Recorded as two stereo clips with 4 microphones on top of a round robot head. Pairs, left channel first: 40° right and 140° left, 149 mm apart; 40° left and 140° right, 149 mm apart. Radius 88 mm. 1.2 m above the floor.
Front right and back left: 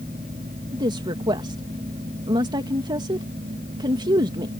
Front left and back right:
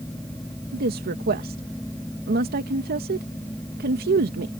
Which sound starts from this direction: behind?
A woman speaking, at 0.7 s.